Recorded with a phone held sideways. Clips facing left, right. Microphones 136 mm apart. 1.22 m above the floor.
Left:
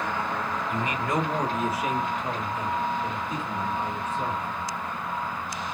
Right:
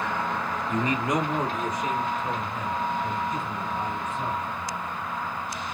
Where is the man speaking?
45° right (ahead or behind), 0.8 m; by 4.5 s 30° left (ahead or behind), 3.5 m.